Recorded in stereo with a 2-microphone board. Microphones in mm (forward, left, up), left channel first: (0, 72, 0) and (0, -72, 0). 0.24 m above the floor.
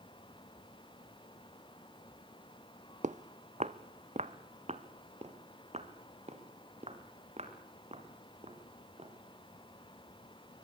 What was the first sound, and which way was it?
Footsteps, 60° right (ahead or behind).